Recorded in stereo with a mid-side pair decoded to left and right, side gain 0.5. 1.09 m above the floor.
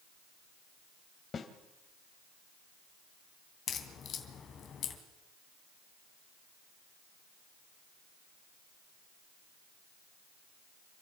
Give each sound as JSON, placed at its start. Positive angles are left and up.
{"t": 1.3, "sound": "a snare drum", "azimuth_deg": 40, "distance_m": 2.5}
{"t": 3.7, "sound": "a crack", "azimuth_deg": 55, "distance_m": 3.0}